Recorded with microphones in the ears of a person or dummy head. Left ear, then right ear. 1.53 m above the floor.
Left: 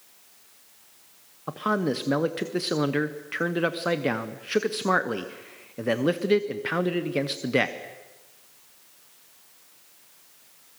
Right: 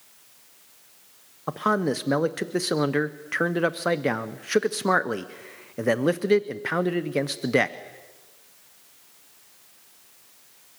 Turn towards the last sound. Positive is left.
turn(degrees=-15)  # may be behind; listen again after turning